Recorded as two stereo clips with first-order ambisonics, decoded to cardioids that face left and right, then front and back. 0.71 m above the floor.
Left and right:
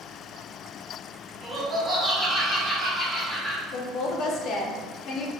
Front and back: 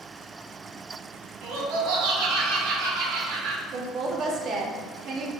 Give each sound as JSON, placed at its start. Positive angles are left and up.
{"t": 1.4, "sound": "laughter", "azimuth_deg": -175, "distance_m": 1.6}
{"t": 3.7, "sound": "a woman speaking", "azimuth_deg": 125, "distance_m": 0.8}